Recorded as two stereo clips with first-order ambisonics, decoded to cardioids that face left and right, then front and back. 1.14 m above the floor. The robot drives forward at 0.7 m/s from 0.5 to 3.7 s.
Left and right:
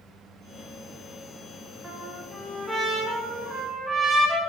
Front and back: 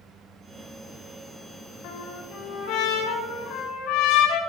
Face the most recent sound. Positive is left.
turn(degrees=-10)